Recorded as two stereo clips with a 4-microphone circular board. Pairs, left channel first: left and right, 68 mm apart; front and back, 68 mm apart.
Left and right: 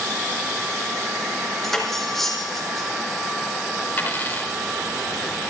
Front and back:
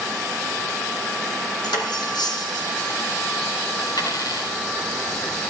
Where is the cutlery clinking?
5° left, 2.5 m.